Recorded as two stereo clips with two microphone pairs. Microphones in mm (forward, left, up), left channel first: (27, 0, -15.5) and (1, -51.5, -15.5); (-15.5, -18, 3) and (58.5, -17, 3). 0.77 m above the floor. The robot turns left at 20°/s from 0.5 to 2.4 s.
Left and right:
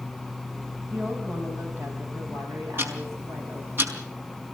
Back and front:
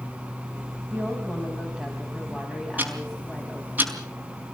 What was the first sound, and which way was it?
A woman speaking, 60° right.